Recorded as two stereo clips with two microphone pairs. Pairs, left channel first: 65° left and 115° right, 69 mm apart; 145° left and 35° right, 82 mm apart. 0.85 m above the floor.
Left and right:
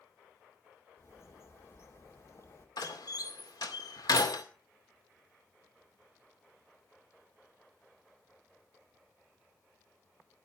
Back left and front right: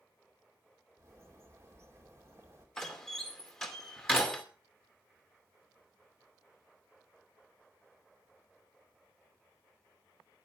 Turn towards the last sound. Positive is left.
turn(degrees=60)